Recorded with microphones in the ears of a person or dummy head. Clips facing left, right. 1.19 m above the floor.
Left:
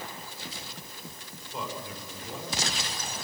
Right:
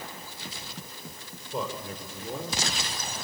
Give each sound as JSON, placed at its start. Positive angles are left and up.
{"t": 1.5, "sound": "a man speaking", "side_deg": -35, "distance_m": 5.0}